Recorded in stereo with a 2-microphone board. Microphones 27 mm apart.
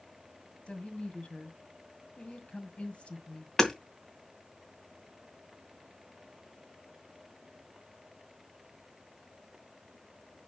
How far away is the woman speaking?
About 2 m.